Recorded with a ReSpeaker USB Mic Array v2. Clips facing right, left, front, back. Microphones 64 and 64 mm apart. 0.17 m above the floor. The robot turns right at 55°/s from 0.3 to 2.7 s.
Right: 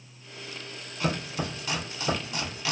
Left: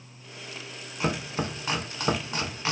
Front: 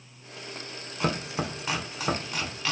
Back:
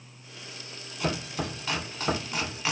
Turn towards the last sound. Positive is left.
turn(degrees=120)